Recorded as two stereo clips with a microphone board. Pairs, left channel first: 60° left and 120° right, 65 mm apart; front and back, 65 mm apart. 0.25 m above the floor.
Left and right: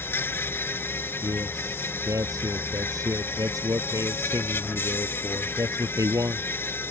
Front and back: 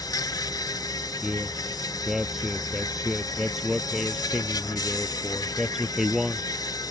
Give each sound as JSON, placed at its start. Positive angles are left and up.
{"t": 0.0, "sound": "an insect", "azimuth_deg": 5}
{"t": 1.2, "sound": "a man speaking", "azimuth_deg": -95}